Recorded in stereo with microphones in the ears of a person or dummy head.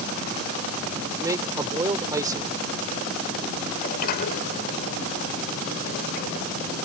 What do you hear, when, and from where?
1.2 s a man speaking: 25° right (ahead or behind)
3.8 s a sliding door: 40° left (ahead or behind)